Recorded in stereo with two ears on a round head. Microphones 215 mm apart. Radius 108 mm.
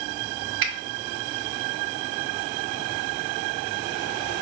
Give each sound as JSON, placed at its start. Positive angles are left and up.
{"t": 0.6, "sound": "a finger snap", "side_deg": -55, "distance_m": 0.8}